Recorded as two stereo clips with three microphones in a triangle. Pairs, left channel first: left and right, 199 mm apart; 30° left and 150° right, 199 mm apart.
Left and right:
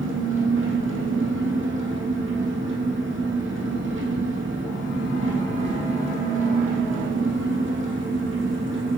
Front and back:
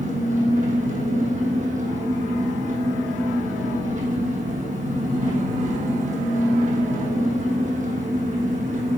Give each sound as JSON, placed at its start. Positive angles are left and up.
{"t": 0.0, "sound": "an engine running", "azimuth_deg": -100, "distance_m": 2.5}